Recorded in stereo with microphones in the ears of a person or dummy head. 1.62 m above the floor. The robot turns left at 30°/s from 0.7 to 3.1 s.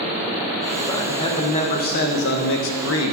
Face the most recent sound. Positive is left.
turn(degrees=90)